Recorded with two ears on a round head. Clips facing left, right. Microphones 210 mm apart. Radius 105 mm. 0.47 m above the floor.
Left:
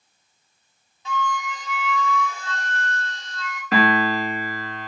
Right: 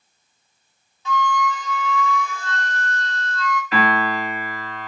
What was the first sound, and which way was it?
A flute, 85° right.